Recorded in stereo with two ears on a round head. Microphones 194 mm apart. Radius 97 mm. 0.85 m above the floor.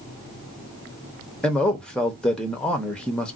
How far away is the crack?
No crack in this recording.